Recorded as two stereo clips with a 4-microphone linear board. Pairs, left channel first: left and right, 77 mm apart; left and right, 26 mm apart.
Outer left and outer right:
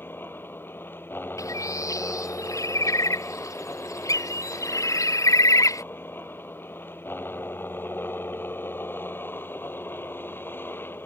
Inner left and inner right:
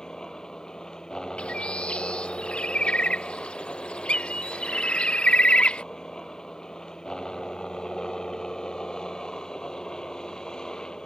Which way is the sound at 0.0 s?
30° left (ahead or behind).